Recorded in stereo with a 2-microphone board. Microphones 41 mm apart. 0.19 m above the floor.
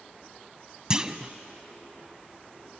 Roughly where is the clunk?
Centre.